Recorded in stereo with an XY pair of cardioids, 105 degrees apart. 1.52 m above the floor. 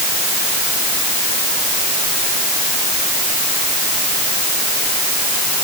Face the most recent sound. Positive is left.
No sound to turn to.